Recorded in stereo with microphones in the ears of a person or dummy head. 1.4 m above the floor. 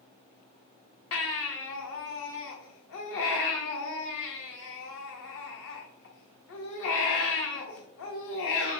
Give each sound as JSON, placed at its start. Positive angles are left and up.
{"t": 1.1, "sound": "a baby crying", "side_deg": 60, "distance_m": 1.0}